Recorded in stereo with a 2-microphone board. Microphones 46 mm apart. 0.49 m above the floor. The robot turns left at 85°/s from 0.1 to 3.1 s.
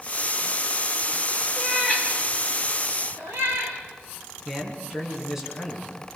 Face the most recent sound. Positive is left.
turn(degrees=-10)  # may be behind; listen again after turning